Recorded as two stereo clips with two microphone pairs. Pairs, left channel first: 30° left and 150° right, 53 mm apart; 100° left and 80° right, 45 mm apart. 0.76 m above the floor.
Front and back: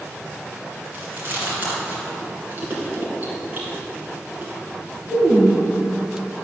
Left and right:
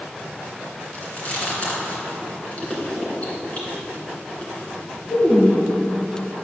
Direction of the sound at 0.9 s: 155° left.